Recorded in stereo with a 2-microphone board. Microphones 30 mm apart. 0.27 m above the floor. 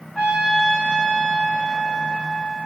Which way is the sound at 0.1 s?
20° left (ahead or behind).